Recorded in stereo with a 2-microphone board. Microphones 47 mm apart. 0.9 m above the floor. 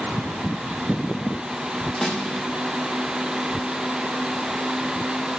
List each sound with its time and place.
2.0 s a snare drum: 10° left (ahead or behind), 0.8 m